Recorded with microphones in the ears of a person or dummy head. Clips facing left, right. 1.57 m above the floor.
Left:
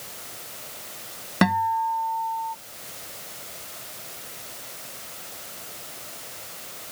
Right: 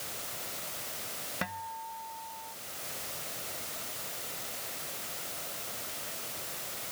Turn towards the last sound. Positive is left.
turn(degrees=80)